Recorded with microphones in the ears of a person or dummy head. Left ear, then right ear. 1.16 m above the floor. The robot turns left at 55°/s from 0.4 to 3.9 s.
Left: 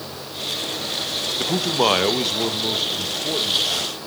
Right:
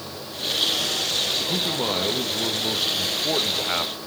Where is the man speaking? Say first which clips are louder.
Left 4 dB; 85° left, 1.2 m; by 3.9 s 55° right, 1.2 m.